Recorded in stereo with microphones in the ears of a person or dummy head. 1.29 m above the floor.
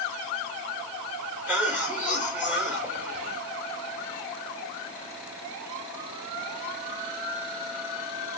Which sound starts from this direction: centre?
A cough, at 1.5 s.